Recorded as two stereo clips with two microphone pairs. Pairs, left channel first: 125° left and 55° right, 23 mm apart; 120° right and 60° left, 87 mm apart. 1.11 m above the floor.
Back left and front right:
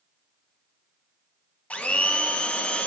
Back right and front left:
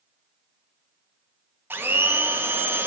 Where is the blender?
130° left, 0.5 m.